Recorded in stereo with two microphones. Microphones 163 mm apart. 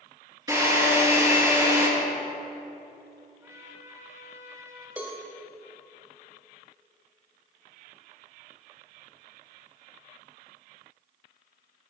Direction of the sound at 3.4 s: 20° right (ahead or behind).